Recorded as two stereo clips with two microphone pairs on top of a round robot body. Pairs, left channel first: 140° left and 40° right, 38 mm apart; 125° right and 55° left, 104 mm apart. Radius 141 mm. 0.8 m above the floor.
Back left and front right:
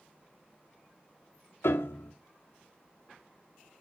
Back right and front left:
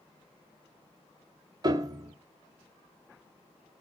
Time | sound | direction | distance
1.6 | a piano | 115° left | 0.6 m